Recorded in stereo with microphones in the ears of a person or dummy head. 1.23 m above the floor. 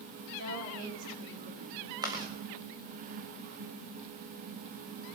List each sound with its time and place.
0.4 s a woman speaking: 80° right, 3.5 m
2.0 s chewing: 20° right (ahead or behind), 1.8 m